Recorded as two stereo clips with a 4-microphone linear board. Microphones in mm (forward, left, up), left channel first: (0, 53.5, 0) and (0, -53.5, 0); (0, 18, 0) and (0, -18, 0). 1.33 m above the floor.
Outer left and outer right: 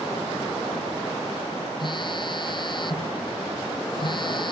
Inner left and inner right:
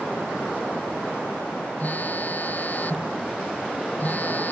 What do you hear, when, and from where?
1.8 s a phone buzzing: 45° left (ahead or behind)